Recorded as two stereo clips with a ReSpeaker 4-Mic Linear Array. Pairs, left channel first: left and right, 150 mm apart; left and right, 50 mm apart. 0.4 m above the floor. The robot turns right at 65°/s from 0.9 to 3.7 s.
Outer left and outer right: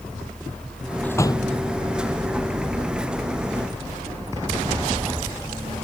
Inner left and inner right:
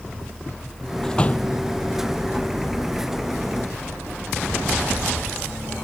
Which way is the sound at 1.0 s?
10° left (ahead or behind).